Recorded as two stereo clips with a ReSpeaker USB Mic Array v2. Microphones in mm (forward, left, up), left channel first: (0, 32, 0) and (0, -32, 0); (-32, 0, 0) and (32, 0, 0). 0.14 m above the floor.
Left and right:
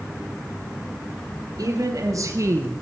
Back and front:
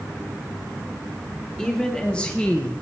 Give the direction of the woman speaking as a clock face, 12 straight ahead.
3 o'clock.